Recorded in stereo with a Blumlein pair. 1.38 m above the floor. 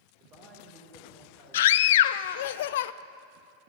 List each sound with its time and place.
0.2 s a man speaking: 35° right, 4 m
1.5 s a scream: 55° left, 0.5 m